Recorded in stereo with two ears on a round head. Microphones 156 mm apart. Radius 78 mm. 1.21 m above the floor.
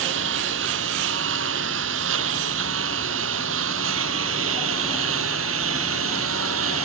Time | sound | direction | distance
0.0 | a lawn mower | 80° right | ?